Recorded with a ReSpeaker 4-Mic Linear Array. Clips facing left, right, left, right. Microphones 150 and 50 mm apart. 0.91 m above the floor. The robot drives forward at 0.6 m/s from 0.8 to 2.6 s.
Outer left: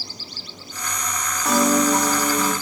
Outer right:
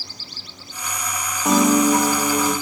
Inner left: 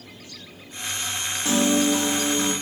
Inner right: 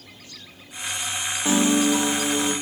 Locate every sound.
1.4 s a piano: 20° right (ahead or behind), 0.6 m; by 2.5 s 10° right (ahead or behind), 1.3 m